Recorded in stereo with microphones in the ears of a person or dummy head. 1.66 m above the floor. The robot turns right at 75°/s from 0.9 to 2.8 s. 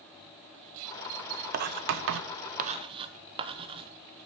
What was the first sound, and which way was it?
Writing, 50° right (ahead or behind).